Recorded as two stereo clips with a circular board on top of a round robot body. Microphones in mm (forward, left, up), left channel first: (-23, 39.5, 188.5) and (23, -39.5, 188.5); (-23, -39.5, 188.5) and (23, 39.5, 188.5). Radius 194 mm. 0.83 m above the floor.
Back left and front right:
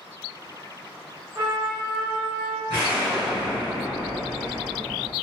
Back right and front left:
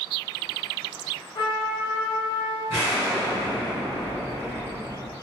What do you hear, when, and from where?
1.4 s a trumpet: 100° right, 1.2 m
2.7 s an explosion: 95° right, 1.3 m